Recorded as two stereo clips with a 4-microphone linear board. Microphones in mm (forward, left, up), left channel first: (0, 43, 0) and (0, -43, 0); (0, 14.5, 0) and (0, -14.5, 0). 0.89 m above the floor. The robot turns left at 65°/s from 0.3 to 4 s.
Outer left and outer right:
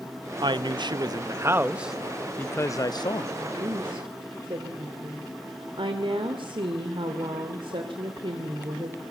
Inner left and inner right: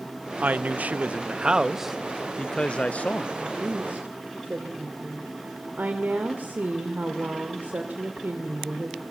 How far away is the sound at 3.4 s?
About 2.5 m.